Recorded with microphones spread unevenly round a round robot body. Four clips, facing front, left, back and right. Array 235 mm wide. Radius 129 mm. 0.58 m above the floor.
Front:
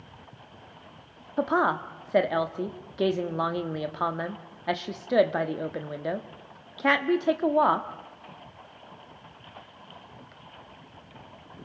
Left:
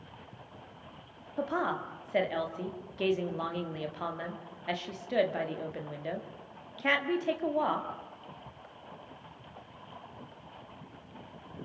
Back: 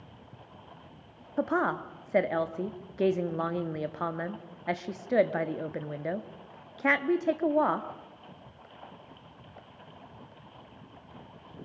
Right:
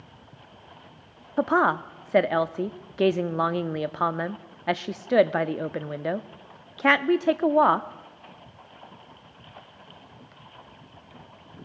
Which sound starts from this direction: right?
A woman speaking, at 1.4 s.